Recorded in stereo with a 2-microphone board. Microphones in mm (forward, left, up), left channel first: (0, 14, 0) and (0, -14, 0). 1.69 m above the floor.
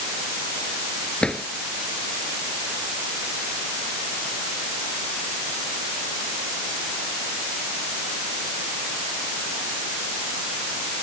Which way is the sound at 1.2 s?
30° left (ahead or behind).